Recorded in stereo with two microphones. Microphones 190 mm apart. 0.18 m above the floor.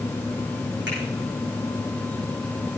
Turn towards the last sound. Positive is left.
turn(degrees=-70)  # may be behind; listen again after turning